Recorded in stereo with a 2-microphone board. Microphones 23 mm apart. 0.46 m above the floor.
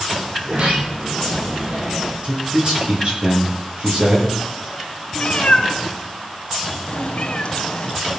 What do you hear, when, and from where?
0.4 s a sliding door: 70° right (ahead or behind), 9.5 m
2.2 s a man speaking: 50° right (ahead or behind), 9 m
5.2 s a cat meowing: 45° left (ahead or behind), 1.3 m